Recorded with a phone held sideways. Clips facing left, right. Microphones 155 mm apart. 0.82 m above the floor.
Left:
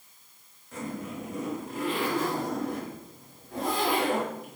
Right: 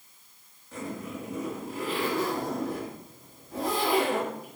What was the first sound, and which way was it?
A zipper, 5° right (ahead or behind).